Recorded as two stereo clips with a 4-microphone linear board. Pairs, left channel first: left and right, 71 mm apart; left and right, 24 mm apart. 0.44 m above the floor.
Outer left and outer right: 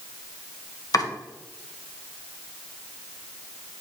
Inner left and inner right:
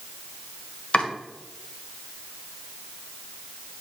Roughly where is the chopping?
Left.